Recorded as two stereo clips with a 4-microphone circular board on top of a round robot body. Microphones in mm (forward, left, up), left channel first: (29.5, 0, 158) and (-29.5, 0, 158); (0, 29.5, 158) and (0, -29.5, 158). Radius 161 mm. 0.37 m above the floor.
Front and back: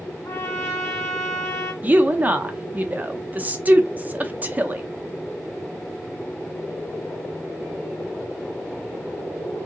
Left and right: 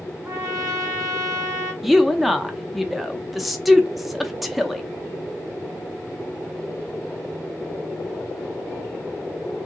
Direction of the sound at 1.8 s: 175° right.